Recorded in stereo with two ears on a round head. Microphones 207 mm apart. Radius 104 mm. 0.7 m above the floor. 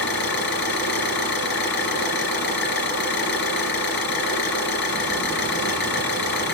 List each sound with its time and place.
0.0 s an engine running: 50° left (ahead or behind), 3.5 m